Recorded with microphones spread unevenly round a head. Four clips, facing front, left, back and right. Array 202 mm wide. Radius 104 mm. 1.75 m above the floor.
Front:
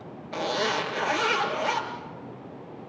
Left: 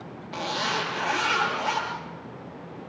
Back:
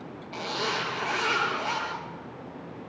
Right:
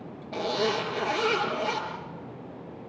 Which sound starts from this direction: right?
A zipper, at 0.3 s.